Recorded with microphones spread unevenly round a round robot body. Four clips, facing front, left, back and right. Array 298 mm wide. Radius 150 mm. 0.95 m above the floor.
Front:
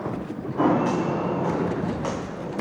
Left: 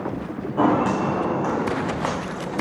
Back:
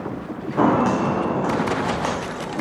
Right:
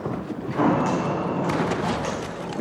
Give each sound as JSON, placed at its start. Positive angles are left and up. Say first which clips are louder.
{"t": 0.6, "sound": "footsteps", "louder": "left 2 dB, back 3 dB", "azimuth_deg": 170, "distance_m": 3.0}